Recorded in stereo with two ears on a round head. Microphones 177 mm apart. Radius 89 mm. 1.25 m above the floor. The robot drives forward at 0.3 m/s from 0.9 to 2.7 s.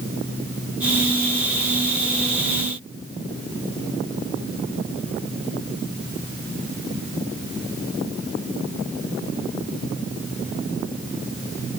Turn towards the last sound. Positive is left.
No sound to turn to.